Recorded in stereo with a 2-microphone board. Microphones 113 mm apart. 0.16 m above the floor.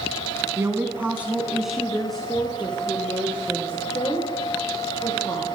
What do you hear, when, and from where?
0.6 s a woman speaking: 25° right (ahead or behind), 1.1 m; by 5.5 s 15° left (ahead or behind), 4.5 m